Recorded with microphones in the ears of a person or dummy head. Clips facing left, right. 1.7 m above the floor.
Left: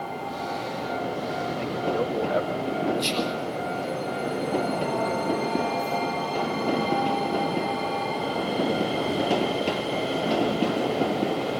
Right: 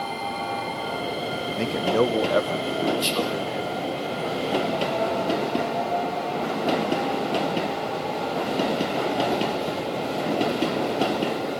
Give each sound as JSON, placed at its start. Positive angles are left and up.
{"t": 1.6, "sound": "a man speaking", "side_deg": -85, "distance_m": 1.4}
{"t": 3.0, "sound": "whispering", "side_deg": -5, "distance_m": 3.5}